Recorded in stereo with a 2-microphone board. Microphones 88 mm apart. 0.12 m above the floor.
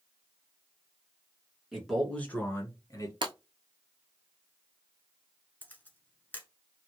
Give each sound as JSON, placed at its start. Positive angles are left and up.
{"t": 1.7, "sound": "a man speaking", "side_deg": -5, "distance_m": 1.4}
{"t": 3.2, "sound": "breaking glass", "side_deg": -60, "distance_m": 0.8}
{"t": 5.6, "sound": "a camera shutter", "side_deg": 20, "distance_m": 1.0}